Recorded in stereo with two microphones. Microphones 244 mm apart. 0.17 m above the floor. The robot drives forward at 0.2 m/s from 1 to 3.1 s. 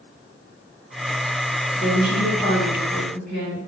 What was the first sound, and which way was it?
A woman speaking, 40° left (ahead or behind).